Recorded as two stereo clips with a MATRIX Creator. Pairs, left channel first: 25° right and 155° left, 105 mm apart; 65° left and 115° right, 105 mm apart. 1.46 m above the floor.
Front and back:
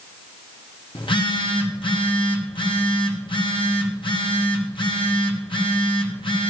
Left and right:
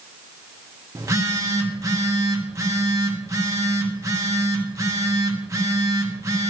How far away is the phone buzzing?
About 1.4 m.